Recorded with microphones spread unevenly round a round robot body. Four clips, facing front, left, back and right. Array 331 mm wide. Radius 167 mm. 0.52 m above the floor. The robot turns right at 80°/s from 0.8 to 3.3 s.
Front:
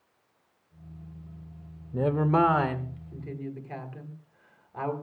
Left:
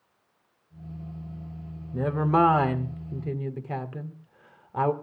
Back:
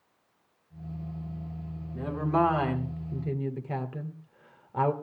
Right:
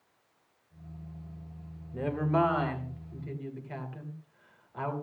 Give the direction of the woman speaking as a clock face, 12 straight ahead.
11 o'clock.